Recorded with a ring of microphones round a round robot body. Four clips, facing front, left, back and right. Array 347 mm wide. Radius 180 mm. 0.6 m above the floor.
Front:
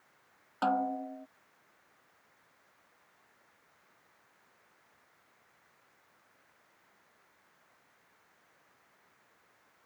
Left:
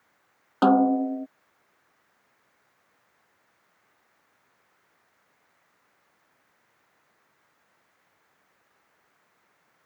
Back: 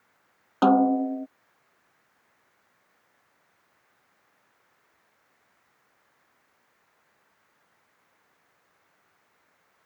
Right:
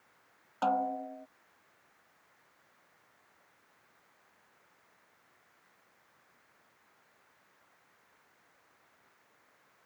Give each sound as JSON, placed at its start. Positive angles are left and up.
{"t": 0.6, "sound": "a snare drum", "azimuth_deg": 130}